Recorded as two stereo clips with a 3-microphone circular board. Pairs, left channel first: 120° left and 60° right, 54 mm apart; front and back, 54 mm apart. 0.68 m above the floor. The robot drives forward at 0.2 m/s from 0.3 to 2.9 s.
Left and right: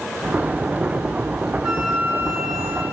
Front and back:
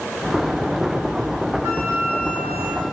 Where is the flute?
140° right, 3.5 m.